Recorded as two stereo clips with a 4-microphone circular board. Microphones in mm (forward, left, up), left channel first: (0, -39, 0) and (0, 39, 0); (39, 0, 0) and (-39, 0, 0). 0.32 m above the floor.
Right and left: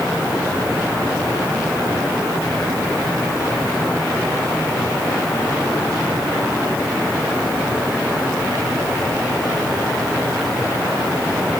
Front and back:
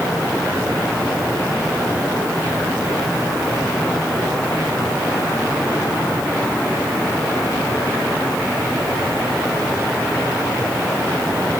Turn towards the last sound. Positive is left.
No sound to turn to.